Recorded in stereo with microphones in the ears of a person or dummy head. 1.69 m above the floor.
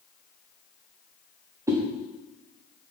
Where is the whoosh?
15° right (ahead or behind), 0.6 m.